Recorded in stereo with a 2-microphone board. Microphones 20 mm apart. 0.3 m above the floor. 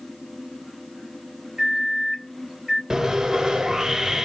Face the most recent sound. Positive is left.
turn(degrees=-35)  # may be behind; listen again after turning